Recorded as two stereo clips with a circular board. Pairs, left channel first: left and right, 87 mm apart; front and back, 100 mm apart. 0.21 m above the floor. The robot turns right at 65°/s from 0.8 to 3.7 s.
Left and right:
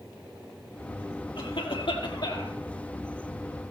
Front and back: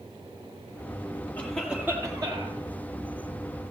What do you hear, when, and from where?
1.4 s a cough: 75° left, 4.5 m; by 2.6 s 155° left, 4.5 m